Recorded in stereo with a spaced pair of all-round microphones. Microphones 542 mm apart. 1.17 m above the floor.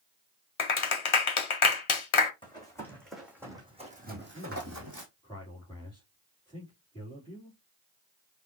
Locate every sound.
0.6 s a clap: 65° left (ahead or behind), 0.7 m
2.4 s running footsteps: 10° left (ahead or behind), 3 m; by 5.1 s 35° right (ahead or behind), 2 m
4.1 s a man speaking: 10° left (ahead or behind), 3 m